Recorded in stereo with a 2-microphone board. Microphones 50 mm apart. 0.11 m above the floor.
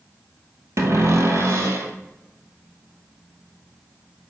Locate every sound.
0.8 s a cupboard door: 70° right (ahead or behind), 1.3 m